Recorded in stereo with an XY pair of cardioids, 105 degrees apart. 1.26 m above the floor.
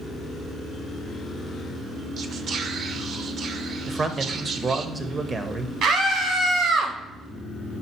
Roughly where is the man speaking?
Ahead right.